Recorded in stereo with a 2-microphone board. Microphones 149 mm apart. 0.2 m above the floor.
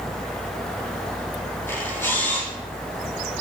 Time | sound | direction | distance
1.7 | a camera shutter | 15° left (ahead or behind) | 4.5 m